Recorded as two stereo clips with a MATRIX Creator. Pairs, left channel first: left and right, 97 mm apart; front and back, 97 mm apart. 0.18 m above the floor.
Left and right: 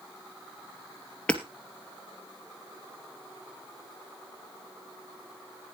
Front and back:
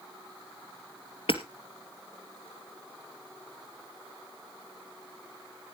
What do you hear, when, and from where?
1.3 s hammering: 10° left, 2 m